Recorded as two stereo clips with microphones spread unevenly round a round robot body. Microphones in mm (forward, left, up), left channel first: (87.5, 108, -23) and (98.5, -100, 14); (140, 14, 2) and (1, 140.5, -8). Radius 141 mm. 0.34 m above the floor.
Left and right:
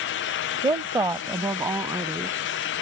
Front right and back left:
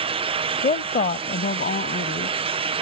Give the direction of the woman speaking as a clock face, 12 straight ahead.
1 o'clock.